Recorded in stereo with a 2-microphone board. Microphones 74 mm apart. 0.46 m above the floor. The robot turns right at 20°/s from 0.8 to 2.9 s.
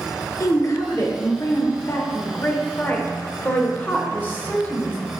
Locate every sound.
0.4 s a woman speaking: 100° left, 1.3 m; by 5.0 s 140° left, 1.3 m